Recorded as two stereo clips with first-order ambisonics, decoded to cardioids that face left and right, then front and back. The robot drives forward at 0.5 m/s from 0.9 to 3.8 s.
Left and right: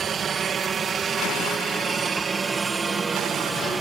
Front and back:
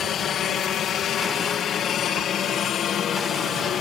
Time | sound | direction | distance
0.0 | a helicopter | 40° right | ?